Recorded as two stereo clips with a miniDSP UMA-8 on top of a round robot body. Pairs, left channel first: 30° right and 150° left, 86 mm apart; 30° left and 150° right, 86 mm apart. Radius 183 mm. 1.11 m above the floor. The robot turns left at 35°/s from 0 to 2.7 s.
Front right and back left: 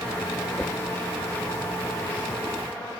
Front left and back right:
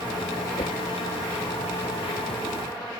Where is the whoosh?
60° left; by 0.8 s 55° left.